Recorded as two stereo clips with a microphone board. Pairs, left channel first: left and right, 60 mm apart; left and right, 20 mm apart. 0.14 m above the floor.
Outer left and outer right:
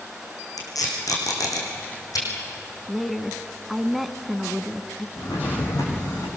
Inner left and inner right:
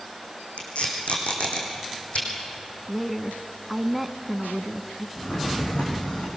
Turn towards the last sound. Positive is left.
turn(degrees=80)